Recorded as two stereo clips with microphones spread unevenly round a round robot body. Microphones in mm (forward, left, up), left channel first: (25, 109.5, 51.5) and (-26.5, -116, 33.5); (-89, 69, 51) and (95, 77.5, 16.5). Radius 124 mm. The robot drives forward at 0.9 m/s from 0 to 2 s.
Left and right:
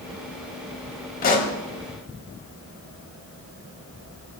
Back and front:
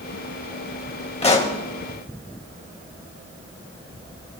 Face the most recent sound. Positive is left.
turn(degrees=145)